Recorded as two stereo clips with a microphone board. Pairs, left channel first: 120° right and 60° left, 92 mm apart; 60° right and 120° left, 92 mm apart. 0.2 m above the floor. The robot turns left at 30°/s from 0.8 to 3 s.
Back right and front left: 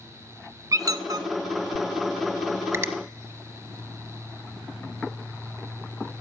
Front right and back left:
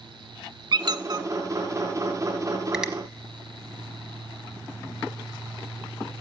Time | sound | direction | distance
0.7 | a squeak | 105° left | 0.5 m
2.7 | a finger snap | 45° left | 0.9 m